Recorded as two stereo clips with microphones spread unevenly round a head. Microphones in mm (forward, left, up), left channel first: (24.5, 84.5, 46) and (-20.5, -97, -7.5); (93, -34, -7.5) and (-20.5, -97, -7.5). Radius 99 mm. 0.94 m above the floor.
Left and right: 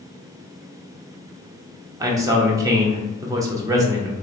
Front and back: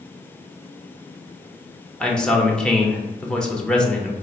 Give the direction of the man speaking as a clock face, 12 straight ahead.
2 o'clock.